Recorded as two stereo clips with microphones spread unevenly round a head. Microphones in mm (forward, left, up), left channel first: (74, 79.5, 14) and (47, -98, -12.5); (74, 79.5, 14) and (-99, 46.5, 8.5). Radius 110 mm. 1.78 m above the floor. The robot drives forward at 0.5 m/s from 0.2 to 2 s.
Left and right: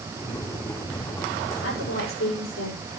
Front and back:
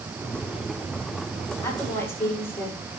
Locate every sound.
1.6 s a woman speaking: 85° left, 8 m